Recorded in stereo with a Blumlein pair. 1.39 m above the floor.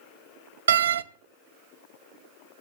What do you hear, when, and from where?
0.7 s a door slam: 65° right, 0.6 m